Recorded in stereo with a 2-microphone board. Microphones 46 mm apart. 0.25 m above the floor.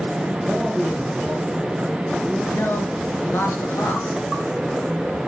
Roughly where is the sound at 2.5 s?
Left.